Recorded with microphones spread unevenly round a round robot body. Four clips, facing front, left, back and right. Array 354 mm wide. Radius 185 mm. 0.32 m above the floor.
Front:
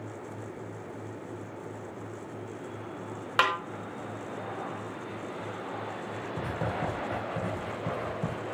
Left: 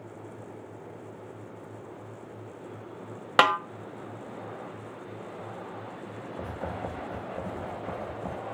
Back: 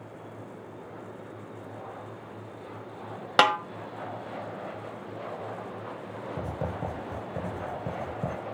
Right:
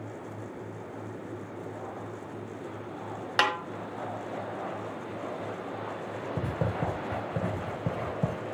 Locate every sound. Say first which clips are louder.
3.4 s a snare drum: left 6 dB, back 5 dB; 140° left, 1.4 m
6.4 s writing: right 3 dB, front 1 dB; 90° right, 6 m